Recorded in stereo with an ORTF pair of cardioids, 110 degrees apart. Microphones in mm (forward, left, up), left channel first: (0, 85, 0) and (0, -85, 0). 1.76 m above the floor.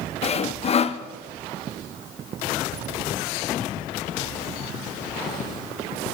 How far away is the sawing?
About 1.1 m.